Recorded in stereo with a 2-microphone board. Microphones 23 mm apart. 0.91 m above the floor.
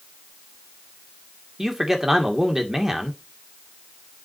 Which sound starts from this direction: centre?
A man speaking, at 1.6 s.